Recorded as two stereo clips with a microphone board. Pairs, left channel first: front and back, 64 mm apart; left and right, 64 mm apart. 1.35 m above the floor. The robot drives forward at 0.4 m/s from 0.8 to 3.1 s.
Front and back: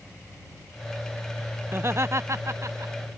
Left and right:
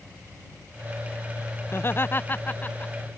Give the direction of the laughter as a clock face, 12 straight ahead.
8 o'clock.